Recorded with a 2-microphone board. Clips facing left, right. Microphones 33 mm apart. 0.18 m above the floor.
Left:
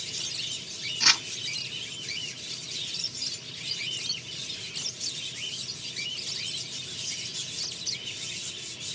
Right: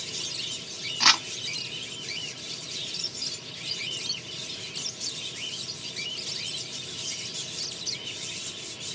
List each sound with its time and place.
1.0 s crumpling: 45° right (ahead or behind), 1.7 m